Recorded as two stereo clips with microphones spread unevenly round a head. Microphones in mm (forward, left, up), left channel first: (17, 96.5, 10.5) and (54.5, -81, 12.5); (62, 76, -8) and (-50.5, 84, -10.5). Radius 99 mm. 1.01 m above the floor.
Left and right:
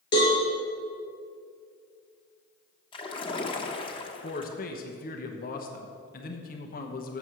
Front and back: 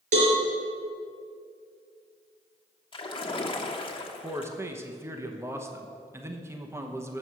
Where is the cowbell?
170° left, 3.5 m.